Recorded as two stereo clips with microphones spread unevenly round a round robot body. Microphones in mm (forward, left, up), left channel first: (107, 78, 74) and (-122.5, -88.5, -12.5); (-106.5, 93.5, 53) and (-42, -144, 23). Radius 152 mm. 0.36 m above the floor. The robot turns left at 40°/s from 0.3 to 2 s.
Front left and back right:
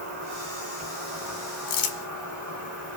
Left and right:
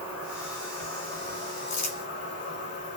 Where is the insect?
150° right, 2 m; by 3.0 s 145° left, 2 m.